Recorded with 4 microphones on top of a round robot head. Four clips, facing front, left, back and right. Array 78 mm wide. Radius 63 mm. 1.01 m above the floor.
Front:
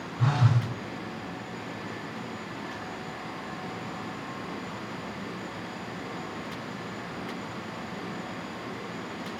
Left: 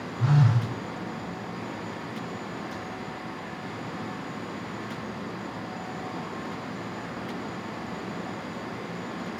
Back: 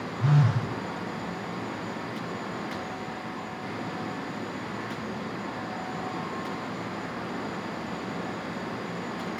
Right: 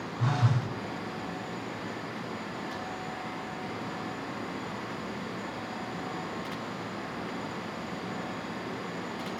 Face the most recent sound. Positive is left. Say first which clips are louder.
# left 5 dB, back 1 dB
turn(degrees=-15)